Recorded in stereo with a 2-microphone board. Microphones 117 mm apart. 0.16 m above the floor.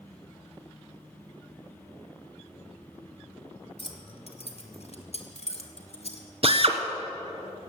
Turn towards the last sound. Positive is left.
turn(degrees=-55)  # may be behind; listen again after turning